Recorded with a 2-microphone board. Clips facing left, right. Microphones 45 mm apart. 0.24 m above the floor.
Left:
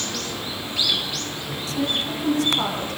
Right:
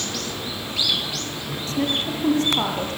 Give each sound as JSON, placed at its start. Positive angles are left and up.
{"t": 1.7, "sound": "a woman speaking", "side_deg": -40, "distance_m": 7.0}